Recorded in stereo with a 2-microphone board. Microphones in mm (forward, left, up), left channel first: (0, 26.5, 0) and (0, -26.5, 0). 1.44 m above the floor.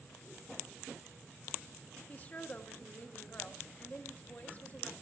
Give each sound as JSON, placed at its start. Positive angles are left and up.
{"t": 2.1, "sound": "a woman speaking", "side_deg": 30, "distance_m": 1.1}